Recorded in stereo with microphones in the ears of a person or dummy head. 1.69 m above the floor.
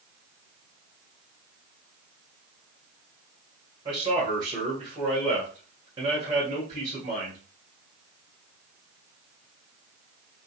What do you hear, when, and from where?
3.9 s a man speaking: 30° right (ahead or behind), 2.0 m